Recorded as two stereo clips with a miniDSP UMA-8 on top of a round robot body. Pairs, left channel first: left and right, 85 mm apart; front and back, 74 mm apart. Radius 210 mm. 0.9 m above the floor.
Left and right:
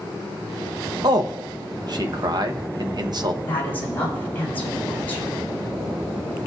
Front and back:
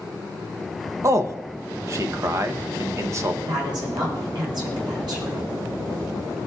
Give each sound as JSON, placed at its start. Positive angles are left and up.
{"t": 1.0, "sound": "a man speaking", "azimuth_deg": -130, "distance_m": 0.9}
{"t": 3.4, "sound": "a woman speaking", "azimuth_deg": 160, "distance_m": 5.5}